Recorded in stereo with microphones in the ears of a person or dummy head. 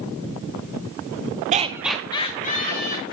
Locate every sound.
1.5 s laughter: 40° right (ahead or behind), 0.5 m; by 3.1 s 55° left (ahead or behind), 1.2 m